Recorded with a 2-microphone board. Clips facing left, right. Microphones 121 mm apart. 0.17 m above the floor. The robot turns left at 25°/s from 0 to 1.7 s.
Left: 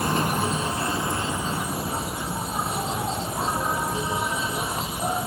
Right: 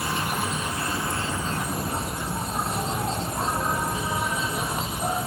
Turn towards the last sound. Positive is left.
turn(degrees=5)